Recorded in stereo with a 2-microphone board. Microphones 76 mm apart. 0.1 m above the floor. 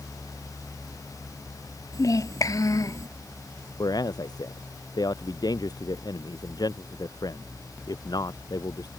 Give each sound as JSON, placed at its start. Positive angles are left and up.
{"t": 1.9, "sound": "a child speaking", "side_deg": 50}
{"t": 3.8, "sound": "a man speaking", "side_deg": 60}